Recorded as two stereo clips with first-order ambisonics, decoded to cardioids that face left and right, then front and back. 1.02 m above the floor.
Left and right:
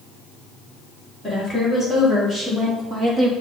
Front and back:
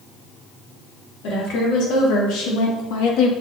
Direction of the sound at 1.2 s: 5° right.